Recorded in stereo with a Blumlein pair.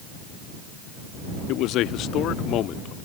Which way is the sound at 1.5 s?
40° left.